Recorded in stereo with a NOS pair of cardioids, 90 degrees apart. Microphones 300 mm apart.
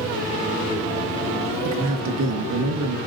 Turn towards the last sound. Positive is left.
turn(degrees=-60)